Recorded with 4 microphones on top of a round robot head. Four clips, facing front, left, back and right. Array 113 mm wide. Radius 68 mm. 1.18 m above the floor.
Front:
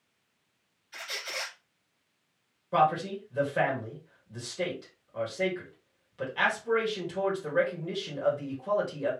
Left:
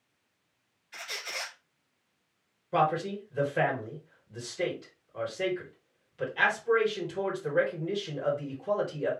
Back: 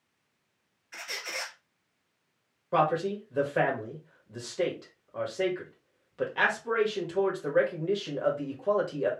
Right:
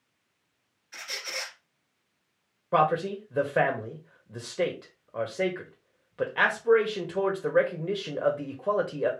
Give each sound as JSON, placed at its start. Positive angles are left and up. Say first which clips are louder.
{"t": 0.9, "sound": "a squeak", "louder": "right 1 dB, even", "azimuth_deg": -145, "distance_m": 2.0}
{"t": 2.7, "sound": "a man speaking", "louder": "right 3 dB, front 1 dB", "azimuth_deg": -110, "distance_m": 1.8}